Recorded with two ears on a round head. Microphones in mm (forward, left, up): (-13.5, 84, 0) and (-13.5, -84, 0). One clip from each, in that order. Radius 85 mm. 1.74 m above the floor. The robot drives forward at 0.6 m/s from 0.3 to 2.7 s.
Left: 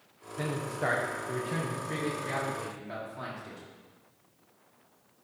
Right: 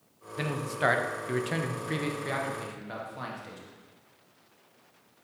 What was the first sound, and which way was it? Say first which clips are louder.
A man speaking: right 3 dB; 50° right (ahead or behind).